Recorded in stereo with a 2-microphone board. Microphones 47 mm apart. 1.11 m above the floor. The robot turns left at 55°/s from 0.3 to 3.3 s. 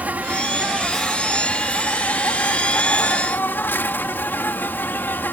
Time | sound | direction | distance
0.0 | an insect | 145° right | ?